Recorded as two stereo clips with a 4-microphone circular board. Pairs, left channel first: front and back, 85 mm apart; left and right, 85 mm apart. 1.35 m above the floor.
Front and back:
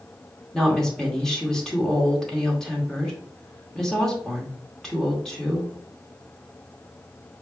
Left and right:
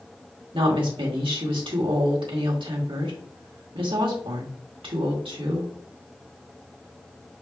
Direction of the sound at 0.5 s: 85° right.